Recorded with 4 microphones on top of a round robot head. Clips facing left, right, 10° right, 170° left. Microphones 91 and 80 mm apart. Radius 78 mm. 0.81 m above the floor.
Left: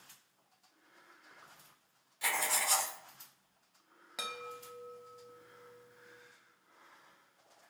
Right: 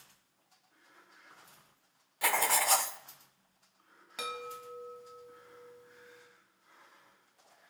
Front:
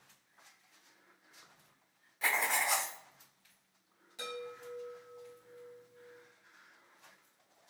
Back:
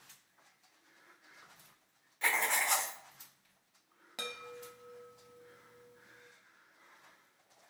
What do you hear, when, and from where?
2.2 s writing: 95° right, 0.5 m
4.2 s a chime: 175° left, 0.9 m